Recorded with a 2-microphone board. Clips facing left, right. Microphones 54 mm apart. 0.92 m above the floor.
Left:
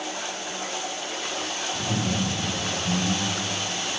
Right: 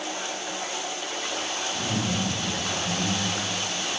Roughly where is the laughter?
Left.